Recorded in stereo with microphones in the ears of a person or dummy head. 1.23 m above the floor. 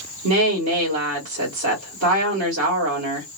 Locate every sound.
0.2 s a woman speaking: 70° right (ahead or behind), 1.6 m